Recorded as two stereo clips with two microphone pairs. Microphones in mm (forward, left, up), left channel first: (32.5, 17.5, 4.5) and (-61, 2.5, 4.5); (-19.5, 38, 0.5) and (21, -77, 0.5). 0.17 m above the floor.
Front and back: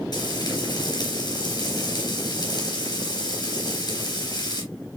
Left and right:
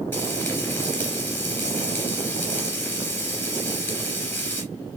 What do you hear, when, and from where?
0.1 s frying: 40° left, 3 m